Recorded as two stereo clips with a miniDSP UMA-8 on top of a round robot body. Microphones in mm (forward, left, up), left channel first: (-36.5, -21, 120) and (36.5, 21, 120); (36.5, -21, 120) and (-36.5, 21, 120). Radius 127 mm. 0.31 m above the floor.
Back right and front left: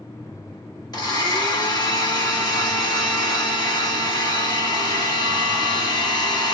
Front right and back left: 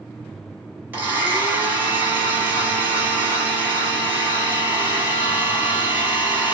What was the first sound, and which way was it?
A blender, 145° right.